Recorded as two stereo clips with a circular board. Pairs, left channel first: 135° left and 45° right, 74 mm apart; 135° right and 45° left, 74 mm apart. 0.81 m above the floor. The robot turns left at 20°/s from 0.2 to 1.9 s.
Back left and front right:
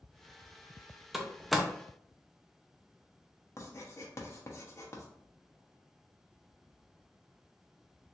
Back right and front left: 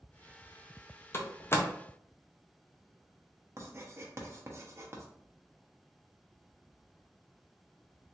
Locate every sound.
1.1 s a door slam: 130° right, 0.5 m; by 1.7 s 140° right, 0.5 m
3.6 s writing: 95° left, 0.7 m